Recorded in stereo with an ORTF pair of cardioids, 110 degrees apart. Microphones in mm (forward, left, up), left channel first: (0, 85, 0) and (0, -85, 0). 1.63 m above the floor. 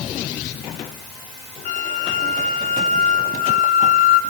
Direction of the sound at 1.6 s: 55° left.